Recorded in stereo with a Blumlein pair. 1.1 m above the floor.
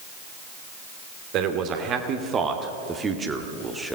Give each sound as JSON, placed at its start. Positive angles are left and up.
{"t": 1.3, "sound": "a man speaking", "azimuth_deg": -35, "distance_m": 2.5}